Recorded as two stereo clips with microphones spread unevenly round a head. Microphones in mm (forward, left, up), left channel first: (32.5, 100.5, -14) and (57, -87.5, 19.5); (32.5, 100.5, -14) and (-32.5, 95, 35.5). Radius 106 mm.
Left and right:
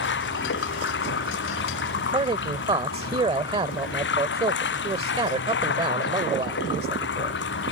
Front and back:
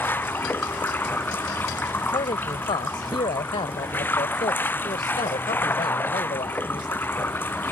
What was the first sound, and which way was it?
Running water, 70° left.